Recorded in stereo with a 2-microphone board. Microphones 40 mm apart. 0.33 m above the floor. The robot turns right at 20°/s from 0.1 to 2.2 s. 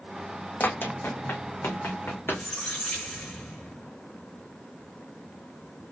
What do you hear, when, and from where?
0.6 s running footsteps: 55° left (ahead or behind), 1.0 m; by 2.5 s 80° left, 1.7 m
2.2 s a squeak: 25° left (ahead or behind), 2.5 m